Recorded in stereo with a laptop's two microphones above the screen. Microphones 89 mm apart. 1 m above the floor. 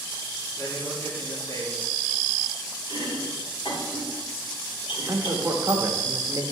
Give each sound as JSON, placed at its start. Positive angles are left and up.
{"t": 0.6, "sound": "a man speaking", "side_deg": 35, "distance_m": 1.8}
{"t": 2.9, "sound": "chopping", "side_deg": 80, "distance_m": 4.5}
{"t": 5.1, "sound": "a man speaking", "side_deg": -30, "distance_m": 1.1}